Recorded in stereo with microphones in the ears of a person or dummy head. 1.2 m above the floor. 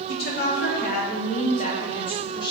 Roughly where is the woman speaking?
Left.